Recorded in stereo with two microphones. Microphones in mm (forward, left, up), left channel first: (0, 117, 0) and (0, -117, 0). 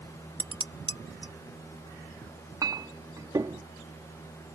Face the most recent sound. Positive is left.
turn(degrees=-15)  # may be behind; listen again after turning